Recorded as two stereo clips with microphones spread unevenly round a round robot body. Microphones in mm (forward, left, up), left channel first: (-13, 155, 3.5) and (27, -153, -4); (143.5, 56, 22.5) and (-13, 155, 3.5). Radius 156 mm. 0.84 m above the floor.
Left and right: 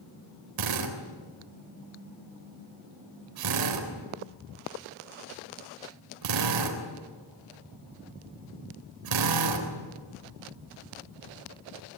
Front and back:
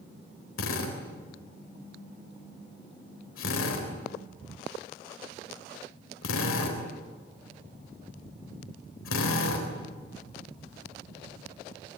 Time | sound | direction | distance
0.6 | a drill | 65° right | 3.5 m